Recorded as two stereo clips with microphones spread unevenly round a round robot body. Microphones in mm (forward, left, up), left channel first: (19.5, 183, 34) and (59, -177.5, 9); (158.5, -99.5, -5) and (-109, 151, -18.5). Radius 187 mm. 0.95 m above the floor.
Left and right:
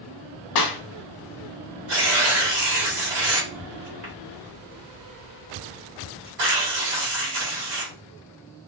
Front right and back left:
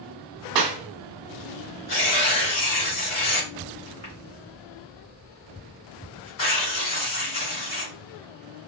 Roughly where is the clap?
Behind left.